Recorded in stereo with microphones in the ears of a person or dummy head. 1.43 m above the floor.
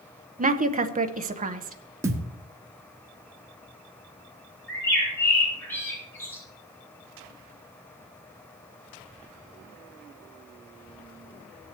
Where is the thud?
20° right (ahead or behind), 1.0 m.